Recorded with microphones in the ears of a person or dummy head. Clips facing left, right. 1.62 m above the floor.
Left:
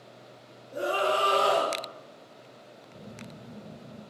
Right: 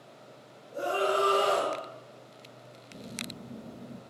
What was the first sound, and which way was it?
A scream, 80° left.